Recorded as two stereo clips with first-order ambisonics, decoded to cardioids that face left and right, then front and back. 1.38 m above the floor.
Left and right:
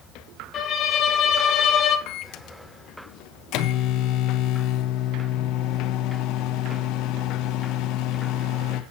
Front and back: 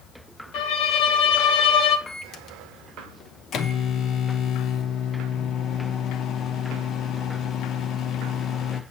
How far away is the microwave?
About 0.9 m.